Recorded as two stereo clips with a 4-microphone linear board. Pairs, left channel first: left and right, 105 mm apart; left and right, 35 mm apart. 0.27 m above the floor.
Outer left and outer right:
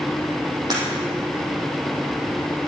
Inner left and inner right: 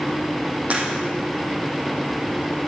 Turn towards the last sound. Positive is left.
turn(degrees=-40)  # may be behind; listen again after turning